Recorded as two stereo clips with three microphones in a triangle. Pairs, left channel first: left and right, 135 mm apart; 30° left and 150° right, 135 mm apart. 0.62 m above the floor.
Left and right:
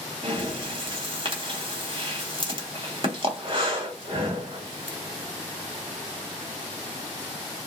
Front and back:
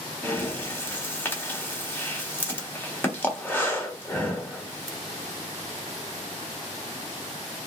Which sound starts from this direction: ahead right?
Breathing, at 0.2 s.